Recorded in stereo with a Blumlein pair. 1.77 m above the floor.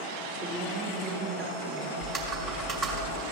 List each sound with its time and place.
0.4 s a woman speaking: 15° right, 2.5 m; by 1.9 s 30° right, 1.9 m
2.0 s typing on a keyboard: 35° right, 2 m